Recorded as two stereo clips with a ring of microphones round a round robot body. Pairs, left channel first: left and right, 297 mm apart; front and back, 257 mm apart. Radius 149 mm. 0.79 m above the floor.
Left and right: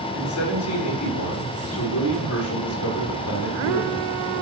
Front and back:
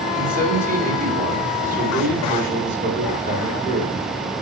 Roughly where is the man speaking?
Behind left.